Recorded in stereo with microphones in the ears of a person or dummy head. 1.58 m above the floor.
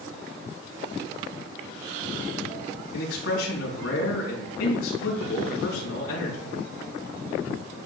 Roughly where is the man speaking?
Left.